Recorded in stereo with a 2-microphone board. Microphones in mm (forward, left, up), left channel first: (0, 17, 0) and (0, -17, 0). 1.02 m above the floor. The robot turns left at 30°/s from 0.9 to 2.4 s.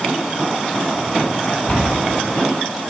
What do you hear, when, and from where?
1.7 s a cupboard door: 30° left (ahead or behind), 1.4 m; by 2.0 s 40° left (ahead or behind), 1.4 m